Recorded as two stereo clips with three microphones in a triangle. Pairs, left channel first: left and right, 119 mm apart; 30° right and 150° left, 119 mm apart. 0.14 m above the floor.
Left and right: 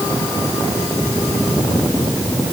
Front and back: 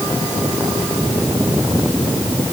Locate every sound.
Only background noise.